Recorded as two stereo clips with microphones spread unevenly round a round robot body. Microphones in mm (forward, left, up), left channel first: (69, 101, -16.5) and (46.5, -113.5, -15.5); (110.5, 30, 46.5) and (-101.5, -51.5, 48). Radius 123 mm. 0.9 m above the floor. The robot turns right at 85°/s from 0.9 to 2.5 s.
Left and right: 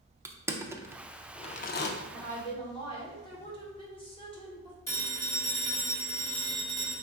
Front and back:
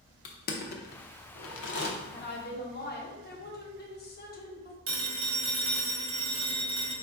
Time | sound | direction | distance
0.2 | crushing | 20° right | 0.5 m
2.1 | a woman speaking | 5° right | 1.1 m
4.9 | a phone ringing | 165° left | 1.2 m